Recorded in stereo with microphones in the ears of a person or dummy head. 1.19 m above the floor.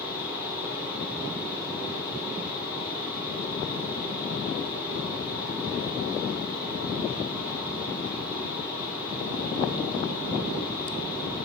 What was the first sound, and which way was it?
A fan, 50° left (ahead or behind).